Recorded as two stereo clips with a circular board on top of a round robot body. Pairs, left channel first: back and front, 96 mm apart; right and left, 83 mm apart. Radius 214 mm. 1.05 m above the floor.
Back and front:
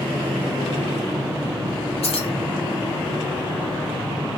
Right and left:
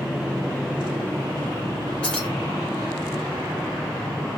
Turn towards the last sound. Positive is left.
turn(degrees=-165)